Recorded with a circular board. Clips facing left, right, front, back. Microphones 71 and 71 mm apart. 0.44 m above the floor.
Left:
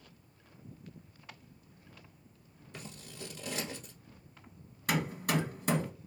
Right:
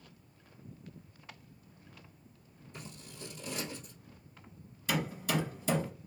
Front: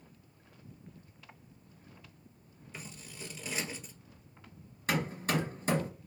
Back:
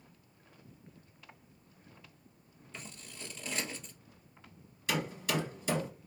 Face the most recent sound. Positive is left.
turn(degrees=50)